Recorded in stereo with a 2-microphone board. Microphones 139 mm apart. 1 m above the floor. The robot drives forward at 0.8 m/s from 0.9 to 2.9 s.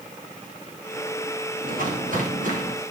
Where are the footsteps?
85° right, 10 m; by 2.7 s 80° right, 11.5 m.